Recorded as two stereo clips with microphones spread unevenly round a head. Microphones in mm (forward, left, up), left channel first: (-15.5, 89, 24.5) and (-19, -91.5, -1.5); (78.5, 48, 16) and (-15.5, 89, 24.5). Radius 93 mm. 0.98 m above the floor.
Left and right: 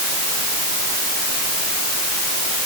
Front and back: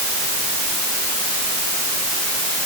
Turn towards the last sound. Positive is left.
No sound to turn to.